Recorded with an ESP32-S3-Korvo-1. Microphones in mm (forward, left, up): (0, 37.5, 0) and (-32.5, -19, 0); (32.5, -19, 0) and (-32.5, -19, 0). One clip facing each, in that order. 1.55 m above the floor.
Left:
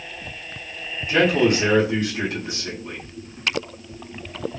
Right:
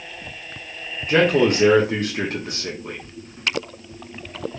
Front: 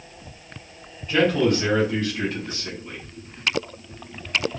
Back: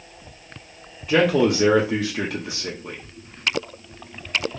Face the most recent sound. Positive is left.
turn(degrees=-165)